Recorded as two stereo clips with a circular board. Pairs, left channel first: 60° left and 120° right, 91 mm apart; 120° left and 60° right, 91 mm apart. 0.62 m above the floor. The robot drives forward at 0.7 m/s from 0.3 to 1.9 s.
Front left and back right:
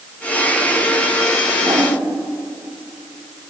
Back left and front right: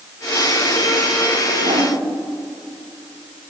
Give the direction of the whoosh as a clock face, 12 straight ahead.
2 o'clock.